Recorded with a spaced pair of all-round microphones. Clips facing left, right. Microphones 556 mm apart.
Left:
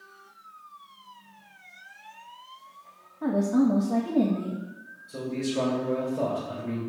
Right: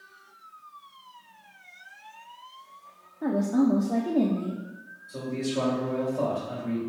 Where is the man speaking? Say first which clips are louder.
Left 1 dB; 90° left, 3.5 m.